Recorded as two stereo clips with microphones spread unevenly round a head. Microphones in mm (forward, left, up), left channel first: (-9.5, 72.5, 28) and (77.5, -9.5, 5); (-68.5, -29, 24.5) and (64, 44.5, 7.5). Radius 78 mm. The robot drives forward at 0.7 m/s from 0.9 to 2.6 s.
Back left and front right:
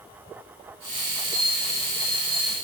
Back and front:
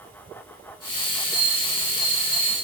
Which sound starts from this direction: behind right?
A bell, at 1.3 s.